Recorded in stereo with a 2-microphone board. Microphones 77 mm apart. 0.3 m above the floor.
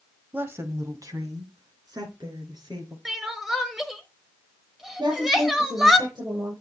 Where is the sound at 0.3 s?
20° right (ahead or behind), 0.9 m; by 3.0 s 65° right (ahead or behind), 4 m.